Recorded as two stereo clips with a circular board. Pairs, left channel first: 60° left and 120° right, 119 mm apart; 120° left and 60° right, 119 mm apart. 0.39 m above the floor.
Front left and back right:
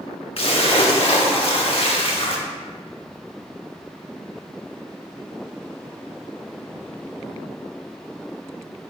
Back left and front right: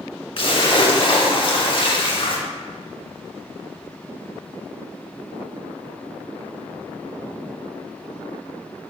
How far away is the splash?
About 0.7 m.